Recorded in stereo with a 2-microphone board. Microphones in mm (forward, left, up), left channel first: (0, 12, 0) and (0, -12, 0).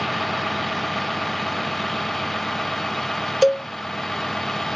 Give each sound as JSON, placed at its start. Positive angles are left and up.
{"t": 0.0, "sound": "a vehicle", "side_deg": 5}
{"t": 3.4, "sound": "a cowbell", "side_deg": -5}